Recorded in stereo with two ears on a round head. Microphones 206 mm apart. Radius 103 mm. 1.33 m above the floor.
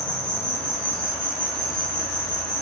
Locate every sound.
0.0 s an insect: 55° left (ahead or behind), 3.5 m